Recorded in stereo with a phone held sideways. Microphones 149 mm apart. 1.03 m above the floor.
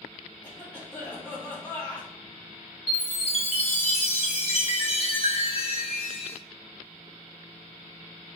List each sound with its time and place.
0.4 s a cough: 10° left (ahead or behind), 1.8 m
2.9 s a chime: 45° left (ahead or behind), 0.8 m